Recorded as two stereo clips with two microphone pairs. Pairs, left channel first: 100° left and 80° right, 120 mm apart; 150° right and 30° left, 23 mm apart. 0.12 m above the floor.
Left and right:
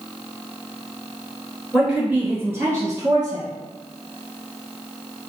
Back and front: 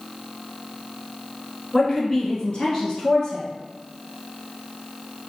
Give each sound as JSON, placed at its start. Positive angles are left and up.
{"t": 1.7, "sound": "a woman speaking", "azimuth_deg": -165, "distance_m": 1.2}